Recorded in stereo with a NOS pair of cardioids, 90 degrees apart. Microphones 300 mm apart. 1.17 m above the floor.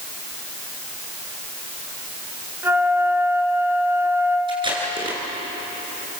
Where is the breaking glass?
I don't hear breaking glass.